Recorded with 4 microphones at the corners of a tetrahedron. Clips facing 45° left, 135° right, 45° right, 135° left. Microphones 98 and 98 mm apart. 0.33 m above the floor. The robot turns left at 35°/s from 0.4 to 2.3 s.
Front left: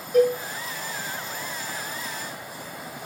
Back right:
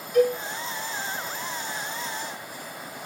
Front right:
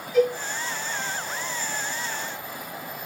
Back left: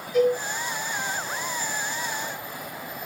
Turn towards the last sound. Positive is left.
turn(degrees=-15)